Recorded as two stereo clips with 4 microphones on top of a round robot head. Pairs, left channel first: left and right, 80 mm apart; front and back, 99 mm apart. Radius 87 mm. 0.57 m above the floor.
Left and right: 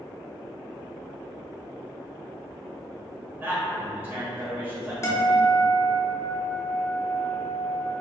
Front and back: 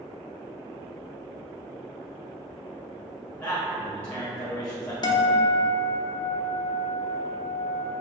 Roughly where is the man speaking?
Ahead right.